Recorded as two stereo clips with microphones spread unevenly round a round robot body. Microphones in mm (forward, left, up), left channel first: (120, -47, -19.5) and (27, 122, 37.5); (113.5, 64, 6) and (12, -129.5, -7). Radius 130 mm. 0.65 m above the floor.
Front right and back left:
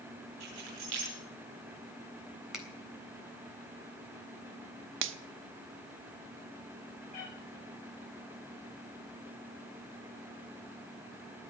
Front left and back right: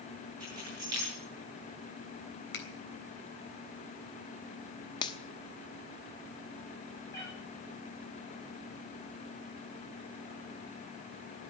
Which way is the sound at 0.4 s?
165° left.